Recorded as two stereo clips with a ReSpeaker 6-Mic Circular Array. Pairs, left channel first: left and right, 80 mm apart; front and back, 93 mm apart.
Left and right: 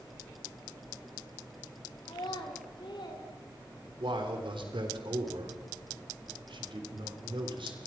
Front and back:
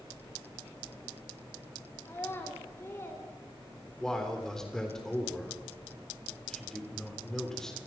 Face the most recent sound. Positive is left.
turn(degrees=-85)